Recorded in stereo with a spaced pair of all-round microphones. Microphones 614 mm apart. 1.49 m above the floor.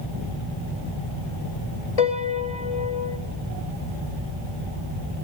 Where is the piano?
70° left (ahead or behind), 1.8 m.